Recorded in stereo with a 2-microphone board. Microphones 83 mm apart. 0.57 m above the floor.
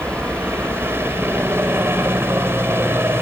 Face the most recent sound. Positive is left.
turn(degrees=-30)  # may be behind; listen again after turning